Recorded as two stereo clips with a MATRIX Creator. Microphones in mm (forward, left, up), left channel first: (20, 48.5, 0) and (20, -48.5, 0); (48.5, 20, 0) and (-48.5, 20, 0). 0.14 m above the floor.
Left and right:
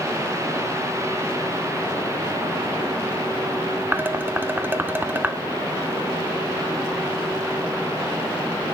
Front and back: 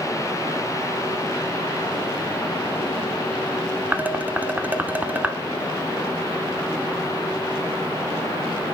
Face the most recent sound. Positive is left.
turn(degrees=-130)